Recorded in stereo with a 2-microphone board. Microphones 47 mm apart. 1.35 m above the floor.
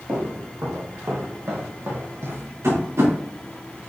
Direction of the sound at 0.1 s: 70° right (ahead or behind).